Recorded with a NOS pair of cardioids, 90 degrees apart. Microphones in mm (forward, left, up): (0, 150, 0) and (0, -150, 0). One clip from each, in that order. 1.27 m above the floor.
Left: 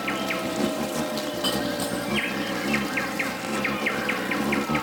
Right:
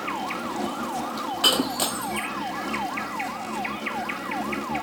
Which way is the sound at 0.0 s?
45° left.